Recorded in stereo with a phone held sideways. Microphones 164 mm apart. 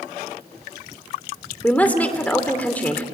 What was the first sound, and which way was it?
A woman speaking, 10° left (ahead or behind).